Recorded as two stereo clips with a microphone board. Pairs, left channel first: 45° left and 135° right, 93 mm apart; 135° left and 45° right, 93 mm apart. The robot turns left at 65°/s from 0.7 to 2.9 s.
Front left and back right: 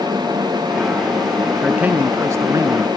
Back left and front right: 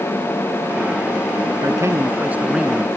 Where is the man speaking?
60° right; by 2.9 s 145° right.